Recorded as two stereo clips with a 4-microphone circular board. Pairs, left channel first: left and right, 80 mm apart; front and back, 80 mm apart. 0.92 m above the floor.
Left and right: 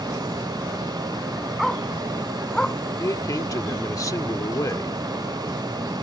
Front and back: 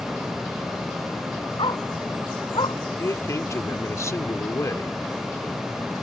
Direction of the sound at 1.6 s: Straight ahead.